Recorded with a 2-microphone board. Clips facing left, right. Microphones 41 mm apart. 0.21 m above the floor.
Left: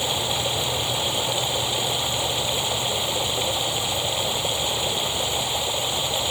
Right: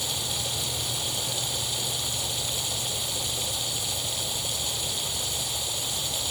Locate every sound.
0.0 s running water: 40° left (ahead or behind)